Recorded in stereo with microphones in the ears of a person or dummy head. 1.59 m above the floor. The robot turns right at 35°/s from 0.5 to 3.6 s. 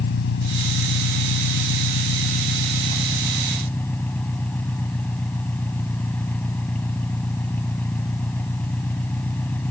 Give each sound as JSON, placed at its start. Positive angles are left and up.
{"t": 0.0, "sound": "an engine running", "azimuth_deg": 60}